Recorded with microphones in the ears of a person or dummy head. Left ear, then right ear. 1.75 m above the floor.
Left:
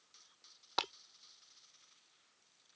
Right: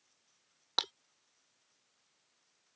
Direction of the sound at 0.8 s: 10° right (ahead or behind).